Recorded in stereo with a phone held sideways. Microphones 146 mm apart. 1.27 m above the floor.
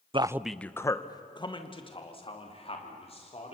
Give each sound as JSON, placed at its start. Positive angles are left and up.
{"t": 0.1, "sound": "a man speaking", "side_deg": -35, "distance_m": 0.5}